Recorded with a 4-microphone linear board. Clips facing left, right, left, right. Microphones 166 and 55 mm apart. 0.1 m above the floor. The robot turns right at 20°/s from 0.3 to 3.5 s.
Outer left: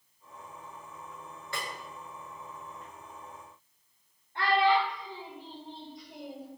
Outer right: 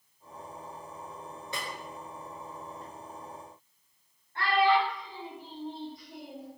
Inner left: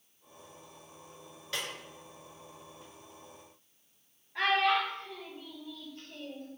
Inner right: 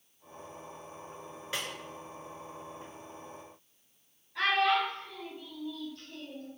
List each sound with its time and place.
1.5 s a snare drum: 20° right (ahead or behind), 0.6 m
4.3 s a child speaking: 20° left (ahead or behind), 1.2 m